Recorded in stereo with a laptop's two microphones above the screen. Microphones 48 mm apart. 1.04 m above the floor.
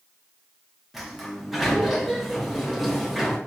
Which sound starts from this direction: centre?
A sliding door, at 0.9 s.